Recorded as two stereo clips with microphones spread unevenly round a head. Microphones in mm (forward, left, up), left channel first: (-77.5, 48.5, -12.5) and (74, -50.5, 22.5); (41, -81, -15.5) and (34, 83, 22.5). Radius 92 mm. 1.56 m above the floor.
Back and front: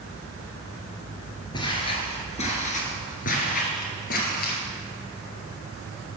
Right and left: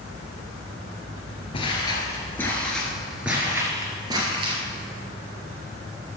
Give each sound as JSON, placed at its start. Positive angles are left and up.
{"t": 1.5, "sound": "footsteps", "azimuth_deg": -150, "distance_m": 1.8}